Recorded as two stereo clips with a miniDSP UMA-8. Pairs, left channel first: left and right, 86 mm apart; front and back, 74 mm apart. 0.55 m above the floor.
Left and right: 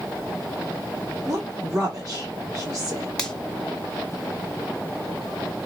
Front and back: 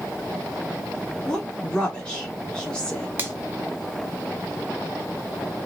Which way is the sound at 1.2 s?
70° right.